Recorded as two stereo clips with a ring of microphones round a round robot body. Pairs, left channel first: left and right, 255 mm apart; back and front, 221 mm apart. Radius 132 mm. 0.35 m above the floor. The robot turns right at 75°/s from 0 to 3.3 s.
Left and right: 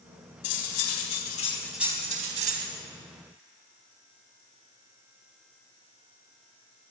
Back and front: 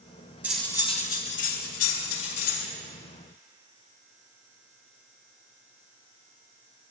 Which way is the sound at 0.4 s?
80° left.